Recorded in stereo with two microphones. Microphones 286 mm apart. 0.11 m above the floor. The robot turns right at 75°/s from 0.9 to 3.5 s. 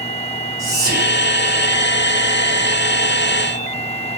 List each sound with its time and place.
0.6 s whispering: 15° right (ahead or behind), 1.6 m; by 1.2 s 25° right (ahead or behind), 1.6 m